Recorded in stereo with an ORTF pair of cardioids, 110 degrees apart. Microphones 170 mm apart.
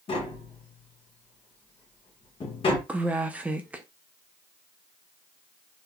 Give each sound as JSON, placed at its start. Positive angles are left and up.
{"t": 0.1, "sound": "tapping", "azimuth_deg": 35, "distance_m": 1.2}
{"t": 2.9, "sound": "a woman speaking", "azimuth_deg": -10, "distance_m": 0.6}